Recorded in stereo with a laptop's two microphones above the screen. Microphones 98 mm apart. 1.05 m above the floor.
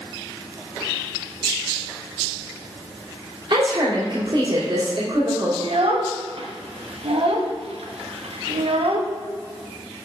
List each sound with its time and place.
3.5 s a woman speaking: 55° right (ahead or behind), 2.5 m
5.6 s a child speaking: 85° right, 1.0 m